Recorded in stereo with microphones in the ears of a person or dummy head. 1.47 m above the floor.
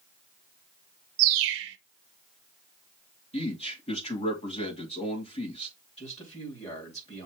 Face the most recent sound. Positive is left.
turn(degrees=30)  # may be behind; listen again after turning